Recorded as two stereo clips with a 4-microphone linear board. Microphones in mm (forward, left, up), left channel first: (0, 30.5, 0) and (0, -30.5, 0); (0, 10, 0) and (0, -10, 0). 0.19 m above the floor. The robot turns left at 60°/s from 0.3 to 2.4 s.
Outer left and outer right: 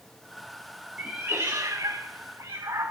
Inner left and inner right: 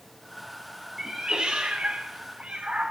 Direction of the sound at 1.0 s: 15° right (ahead or behind).